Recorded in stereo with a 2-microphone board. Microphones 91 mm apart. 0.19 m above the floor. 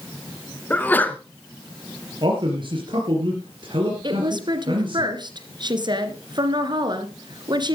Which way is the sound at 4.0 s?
55° right (ahead or behind).